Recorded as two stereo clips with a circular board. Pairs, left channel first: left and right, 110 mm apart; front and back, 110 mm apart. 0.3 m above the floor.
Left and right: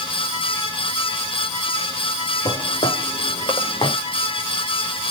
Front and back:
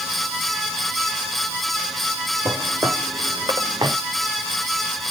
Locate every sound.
2.5 s footsteps: 115° left, 5 m; by 4.0 s 130° left, 5.5 m